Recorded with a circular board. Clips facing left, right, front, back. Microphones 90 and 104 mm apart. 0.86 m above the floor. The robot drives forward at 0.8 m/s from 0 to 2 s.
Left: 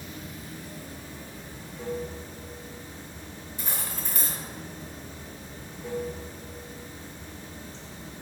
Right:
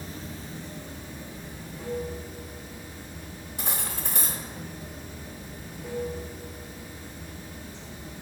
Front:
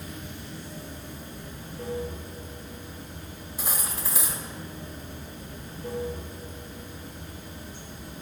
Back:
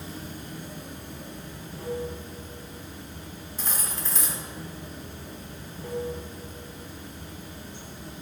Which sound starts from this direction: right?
Cutlery clinking, at 3.6 s.